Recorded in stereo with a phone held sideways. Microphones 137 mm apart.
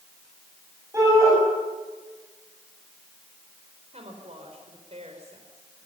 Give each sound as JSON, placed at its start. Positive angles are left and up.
{"t": 0.9, "sound": "a shout", "side_deg": -20, "distance_m": 8.0}
{"t": 3.9, "sound": "a woman speaking", "side_deg": -55, "distance_m": 4.5}